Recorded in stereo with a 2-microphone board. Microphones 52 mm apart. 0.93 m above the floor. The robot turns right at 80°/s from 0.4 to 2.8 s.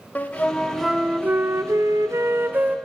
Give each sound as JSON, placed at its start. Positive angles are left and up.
{"t": 0.1, "sound": "a flute", "azimuth_deg": 150, "distance_m": 0.6}